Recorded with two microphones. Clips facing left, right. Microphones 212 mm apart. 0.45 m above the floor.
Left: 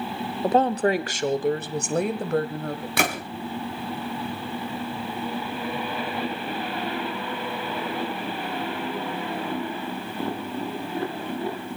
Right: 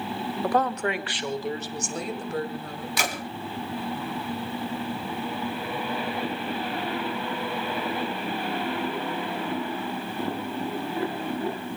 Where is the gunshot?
65° left (ahead or behind), 2.5 m.